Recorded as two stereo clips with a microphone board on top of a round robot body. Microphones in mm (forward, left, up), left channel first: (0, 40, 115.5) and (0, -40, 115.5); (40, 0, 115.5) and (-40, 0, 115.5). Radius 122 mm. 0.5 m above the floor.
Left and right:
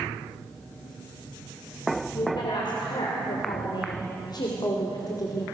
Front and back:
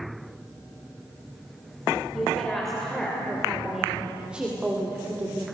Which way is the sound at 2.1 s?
85° left.